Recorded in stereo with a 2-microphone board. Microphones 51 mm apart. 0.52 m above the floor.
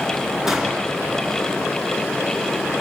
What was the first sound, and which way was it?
A gunshot, 5° right (ahead or behind).